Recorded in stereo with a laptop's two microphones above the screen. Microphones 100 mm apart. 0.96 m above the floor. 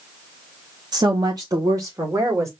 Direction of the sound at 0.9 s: 45° right (ahead or behind).